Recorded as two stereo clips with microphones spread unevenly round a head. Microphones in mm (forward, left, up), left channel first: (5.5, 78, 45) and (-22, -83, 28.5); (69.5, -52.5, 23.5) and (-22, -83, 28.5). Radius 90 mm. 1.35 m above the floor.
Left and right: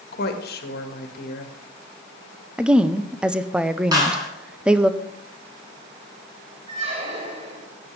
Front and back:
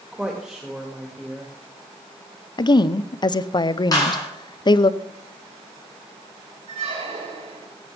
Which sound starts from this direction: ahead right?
A clap, at 3.9 s.